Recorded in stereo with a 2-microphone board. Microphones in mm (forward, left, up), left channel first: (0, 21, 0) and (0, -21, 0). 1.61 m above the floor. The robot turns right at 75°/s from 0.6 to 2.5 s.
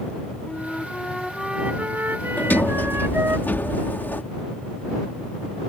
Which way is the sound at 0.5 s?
135° left.